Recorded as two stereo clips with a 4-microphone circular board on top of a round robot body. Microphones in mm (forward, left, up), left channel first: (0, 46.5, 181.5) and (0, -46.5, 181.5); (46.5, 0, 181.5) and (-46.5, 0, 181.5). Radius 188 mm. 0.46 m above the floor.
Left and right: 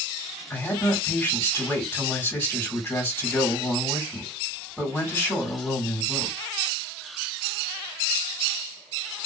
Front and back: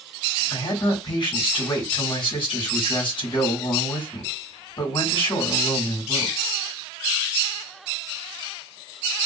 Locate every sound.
0.5 s a man speaking: 25° left, 2.5 m